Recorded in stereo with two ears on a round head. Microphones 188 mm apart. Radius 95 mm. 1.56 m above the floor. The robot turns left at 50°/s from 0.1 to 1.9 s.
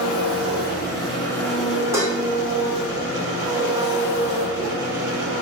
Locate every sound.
0.0 s an engine running: 75° left, 1.4 m; by 5.4 s 15° right, 1.4 m
1.9 s dishes clattering: 15° right (ahead or behind), 1.0 m